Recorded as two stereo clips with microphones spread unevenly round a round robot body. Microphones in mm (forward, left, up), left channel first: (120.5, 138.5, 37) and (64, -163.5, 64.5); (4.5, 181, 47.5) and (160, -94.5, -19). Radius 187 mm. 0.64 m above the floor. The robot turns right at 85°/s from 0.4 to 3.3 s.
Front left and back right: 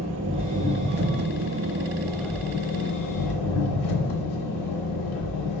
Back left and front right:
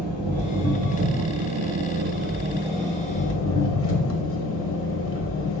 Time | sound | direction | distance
0.0 | an engine running | 165° right | 0.9 m